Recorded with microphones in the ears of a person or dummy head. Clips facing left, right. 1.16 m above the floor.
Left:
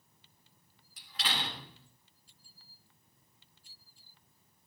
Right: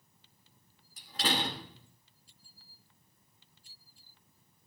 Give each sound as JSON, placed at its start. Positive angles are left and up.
{"t": 1.0, "sound": "a door slam", "side_deg": -45, "distance_m": 2.5}